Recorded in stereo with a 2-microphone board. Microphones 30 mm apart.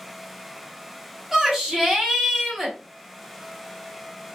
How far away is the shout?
About 1.0 m.